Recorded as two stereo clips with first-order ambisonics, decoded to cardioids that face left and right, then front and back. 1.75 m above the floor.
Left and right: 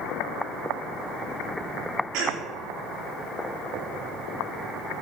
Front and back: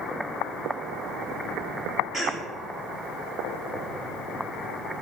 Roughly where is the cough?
Right.